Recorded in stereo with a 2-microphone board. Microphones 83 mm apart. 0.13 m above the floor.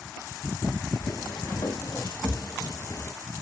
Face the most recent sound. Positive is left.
turn(degrees=35)  # may be behind; listen again after turning